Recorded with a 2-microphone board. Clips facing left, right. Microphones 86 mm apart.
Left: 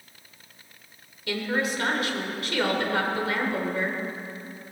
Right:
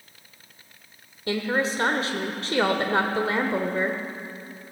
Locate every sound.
1.3 s a woman speaking: 30° right (ahead or behind), 0.9 m